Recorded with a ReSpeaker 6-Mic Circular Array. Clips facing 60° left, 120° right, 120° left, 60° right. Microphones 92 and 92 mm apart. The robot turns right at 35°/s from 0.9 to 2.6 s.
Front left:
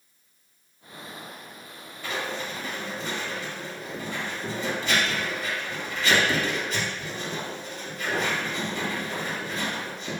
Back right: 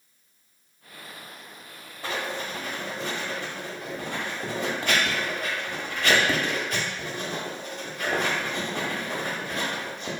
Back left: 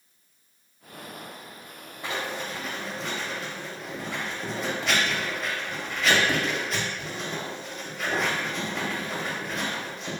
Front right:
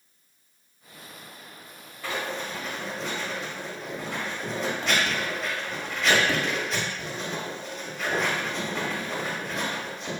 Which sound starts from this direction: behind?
Writing, at 2.0 s.